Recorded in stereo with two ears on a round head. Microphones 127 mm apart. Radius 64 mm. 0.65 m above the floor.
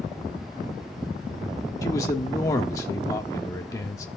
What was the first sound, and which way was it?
A man speaking, 25° left (ahead or behind).